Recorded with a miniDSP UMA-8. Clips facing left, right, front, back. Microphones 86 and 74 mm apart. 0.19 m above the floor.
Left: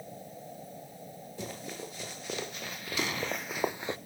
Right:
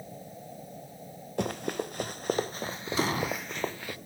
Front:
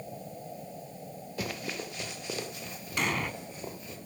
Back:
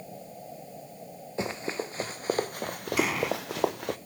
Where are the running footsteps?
115° right, 2.5 m; by 4.0 s 155° left, 1.3 m.